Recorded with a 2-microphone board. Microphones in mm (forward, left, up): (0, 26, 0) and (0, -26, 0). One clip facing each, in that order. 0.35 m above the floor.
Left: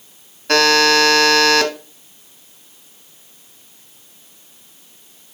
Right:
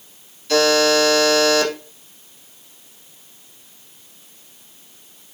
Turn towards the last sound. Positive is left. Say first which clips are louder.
# left 2 dB
turn(degrees=70)  # may be behind; listen again after turning